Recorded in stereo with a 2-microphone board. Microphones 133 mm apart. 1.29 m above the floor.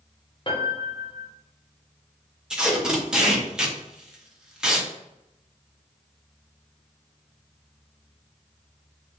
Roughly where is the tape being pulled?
Centre.